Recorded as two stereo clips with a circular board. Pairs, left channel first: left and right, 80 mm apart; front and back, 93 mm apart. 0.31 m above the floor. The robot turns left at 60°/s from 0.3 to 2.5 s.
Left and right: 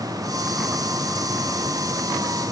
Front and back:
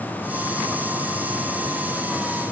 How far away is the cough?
No cough in this recording.